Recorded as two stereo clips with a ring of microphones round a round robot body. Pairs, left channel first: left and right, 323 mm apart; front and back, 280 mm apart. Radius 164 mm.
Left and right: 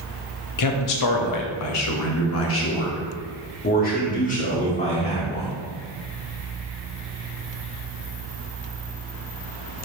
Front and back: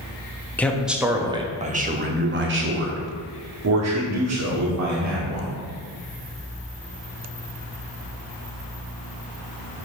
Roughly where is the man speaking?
Left.